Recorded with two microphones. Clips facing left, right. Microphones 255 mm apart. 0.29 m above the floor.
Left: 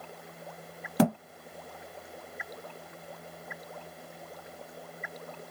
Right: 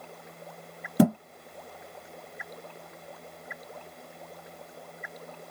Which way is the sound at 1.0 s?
25° right (ahead or behind).